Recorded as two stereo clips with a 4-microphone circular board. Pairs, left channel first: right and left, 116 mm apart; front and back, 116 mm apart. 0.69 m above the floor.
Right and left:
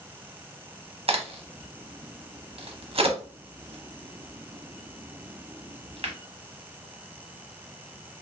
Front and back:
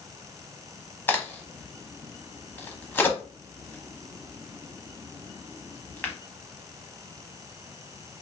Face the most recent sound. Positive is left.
turn(degrees=75)